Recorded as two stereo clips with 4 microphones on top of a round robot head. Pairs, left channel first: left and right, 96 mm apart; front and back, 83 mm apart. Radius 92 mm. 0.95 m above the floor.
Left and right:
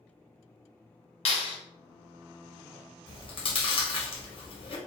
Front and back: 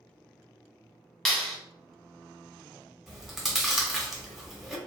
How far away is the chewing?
About 0.8 m.